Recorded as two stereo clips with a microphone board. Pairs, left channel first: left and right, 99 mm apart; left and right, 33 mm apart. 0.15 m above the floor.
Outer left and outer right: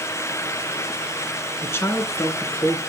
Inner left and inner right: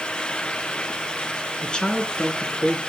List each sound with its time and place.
1.6 s a man speaking: 25° left (ahead or behind), 2 m; by 2.8 s 20° left (ahead or behind), 3 m